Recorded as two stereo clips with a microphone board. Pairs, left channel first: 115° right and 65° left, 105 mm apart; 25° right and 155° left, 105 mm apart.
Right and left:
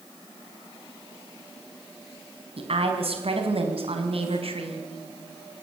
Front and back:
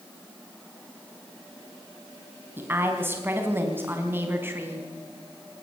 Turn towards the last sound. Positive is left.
turn(degrees=90)